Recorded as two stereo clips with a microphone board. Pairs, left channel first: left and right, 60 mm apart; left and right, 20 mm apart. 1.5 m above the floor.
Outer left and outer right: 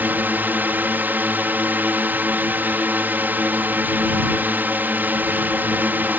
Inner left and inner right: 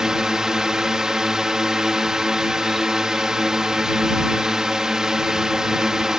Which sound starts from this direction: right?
A drone, at 0.0 s.